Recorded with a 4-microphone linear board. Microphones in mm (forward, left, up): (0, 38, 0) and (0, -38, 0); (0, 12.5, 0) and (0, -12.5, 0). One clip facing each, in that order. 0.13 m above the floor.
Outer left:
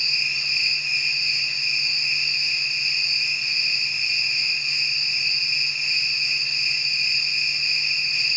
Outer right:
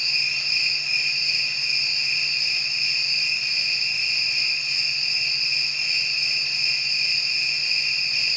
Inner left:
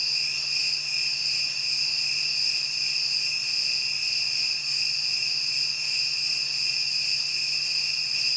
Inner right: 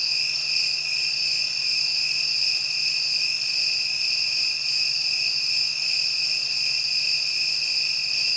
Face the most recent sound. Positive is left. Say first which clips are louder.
# outer left 1 dB, inner right 2 dB
turn(degrees=-70)  # may be behind; listen again after turning